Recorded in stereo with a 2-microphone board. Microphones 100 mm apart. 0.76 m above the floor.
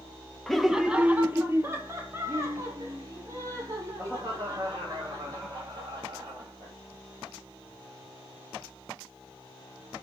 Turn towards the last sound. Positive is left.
turn(degrees=-40)  # may be behind; listen again after turning